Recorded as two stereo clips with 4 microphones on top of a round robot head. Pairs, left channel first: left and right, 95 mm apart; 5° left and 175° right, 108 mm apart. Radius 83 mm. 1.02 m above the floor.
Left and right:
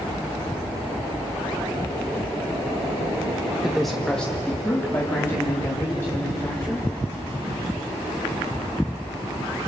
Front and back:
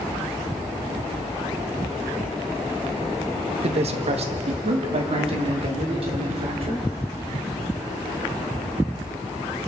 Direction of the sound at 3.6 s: 175° right.